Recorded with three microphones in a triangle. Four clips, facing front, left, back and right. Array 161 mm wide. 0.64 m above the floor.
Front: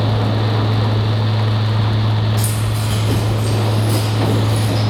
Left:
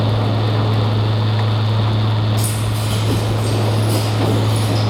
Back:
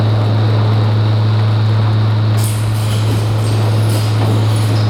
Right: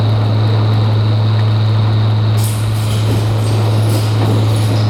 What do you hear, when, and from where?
2.4 s keys jangling: 150° right, 3 m; by 4.8 s 155° right, 4.5 m